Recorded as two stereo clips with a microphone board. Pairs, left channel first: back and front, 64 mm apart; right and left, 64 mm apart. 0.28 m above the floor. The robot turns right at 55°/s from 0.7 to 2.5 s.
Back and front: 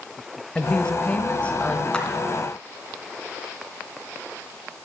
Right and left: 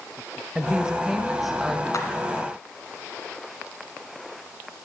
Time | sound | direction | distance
0.6 | a woman speaking | 130° left | 1.0 m
1.9 | a clap | 105° right | 2 m